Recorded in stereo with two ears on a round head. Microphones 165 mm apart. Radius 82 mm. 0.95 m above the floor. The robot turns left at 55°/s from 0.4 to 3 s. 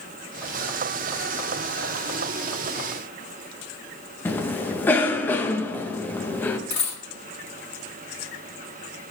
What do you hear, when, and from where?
4.2 s a cough: 10° left (ahead or behind), 0.9 m
6.7 s a dropped coin: 35° left (ahead or behind), 4.5 m